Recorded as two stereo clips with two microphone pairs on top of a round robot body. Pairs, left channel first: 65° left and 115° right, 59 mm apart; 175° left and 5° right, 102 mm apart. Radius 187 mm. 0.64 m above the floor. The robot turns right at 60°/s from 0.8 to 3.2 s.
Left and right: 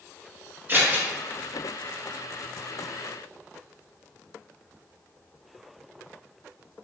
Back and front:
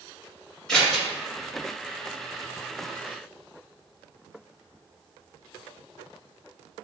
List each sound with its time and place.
0.7 s scissors: 95° right, 1.2 m; by 1.1 s 80° right, 1.2 m